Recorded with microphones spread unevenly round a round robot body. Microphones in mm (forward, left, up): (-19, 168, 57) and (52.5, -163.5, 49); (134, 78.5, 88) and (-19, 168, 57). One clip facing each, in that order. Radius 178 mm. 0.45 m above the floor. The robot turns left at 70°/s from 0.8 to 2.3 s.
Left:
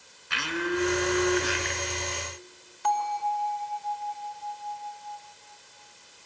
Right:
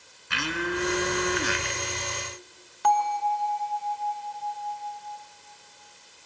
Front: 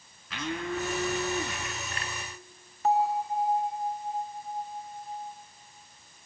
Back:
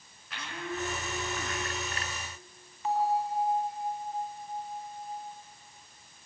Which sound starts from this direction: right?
A bell, at 2.8 s.